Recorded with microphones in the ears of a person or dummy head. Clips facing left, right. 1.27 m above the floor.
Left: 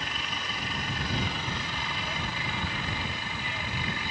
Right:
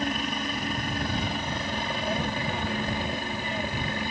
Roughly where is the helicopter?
Right.